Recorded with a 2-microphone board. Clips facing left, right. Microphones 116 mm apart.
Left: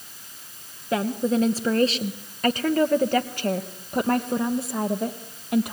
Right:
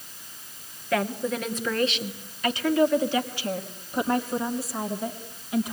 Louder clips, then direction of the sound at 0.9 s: Left 3 dB; 25° left (ahead or behind).